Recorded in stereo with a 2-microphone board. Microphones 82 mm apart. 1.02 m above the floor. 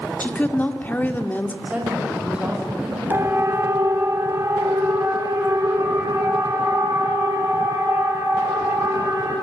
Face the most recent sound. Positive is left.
turn(degrees=-35)  # may be behind; listen again after turning